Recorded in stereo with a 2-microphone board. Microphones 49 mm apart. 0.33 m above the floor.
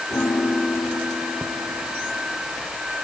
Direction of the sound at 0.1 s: 70° left (ahead or behind).